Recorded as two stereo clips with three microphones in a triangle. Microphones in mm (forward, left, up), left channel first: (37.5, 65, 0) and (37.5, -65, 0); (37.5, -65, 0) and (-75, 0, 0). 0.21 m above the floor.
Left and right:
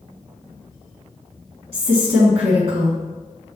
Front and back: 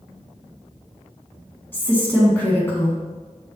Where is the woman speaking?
100° right, 2 m.